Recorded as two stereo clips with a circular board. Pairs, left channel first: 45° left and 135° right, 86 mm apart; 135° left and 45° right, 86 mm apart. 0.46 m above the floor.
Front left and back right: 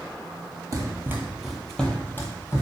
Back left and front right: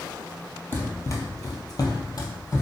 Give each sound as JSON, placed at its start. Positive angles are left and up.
{"t": 0.7, "sound": "running footsteps", "azimuth_deg": -165, "distance_m": 0.7}